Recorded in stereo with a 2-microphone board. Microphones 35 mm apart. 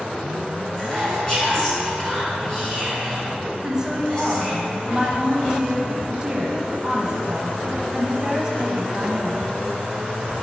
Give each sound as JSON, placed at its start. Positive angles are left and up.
{"t": 0.8, "sound": "whispering", "side_deg": 20, "distance_m": 2.0}
{"t": 3.6, "sound": "a woman speaking", "side_deg": -20, "distance_m": 1.0}